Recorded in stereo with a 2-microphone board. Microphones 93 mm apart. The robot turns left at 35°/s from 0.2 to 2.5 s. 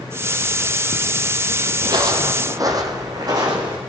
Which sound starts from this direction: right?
Footsteps, at 1.8 s.